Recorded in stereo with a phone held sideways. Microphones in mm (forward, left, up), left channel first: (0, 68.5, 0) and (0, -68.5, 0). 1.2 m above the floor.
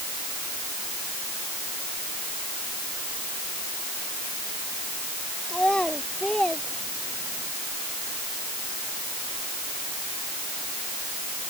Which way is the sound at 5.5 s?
5° left (ahead or behind).